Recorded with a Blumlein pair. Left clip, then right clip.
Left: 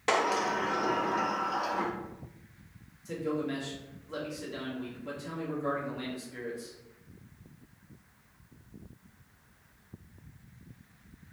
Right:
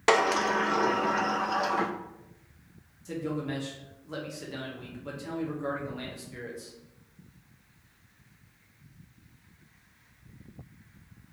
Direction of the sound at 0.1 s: 65° right.